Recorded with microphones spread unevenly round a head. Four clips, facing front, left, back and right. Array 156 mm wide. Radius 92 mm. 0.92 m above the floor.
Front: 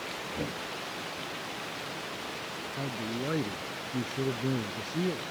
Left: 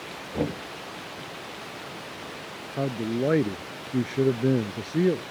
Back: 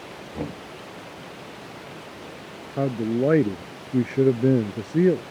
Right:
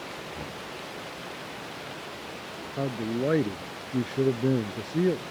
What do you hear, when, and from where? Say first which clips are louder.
0.3 s knocking: left 10 dB, back 5 dB; 110° left
2.8 s a man speaking: left 2 dB, back 13 dB; 175° left